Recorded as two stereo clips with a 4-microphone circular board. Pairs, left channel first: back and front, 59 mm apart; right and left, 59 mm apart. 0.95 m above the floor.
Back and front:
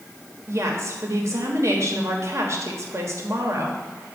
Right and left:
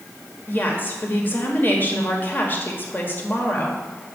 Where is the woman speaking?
35° right, 1.2 m.